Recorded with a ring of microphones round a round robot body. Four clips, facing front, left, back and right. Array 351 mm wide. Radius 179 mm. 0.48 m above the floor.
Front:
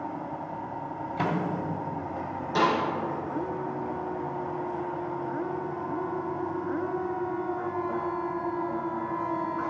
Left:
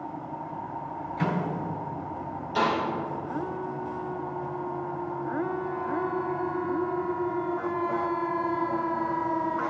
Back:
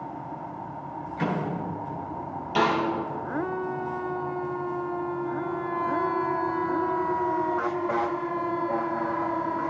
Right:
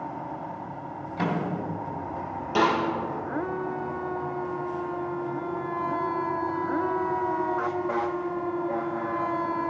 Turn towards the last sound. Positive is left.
turn(degrees=-80)